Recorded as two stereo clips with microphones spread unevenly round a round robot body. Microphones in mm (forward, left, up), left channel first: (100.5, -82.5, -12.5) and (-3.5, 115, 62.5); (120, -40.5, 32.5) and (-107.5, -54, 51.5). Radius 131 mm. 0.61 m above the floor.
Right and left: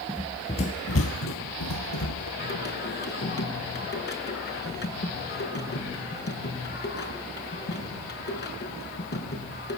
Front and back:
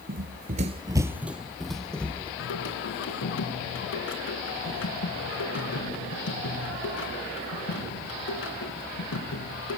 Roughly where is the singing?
Ahead right.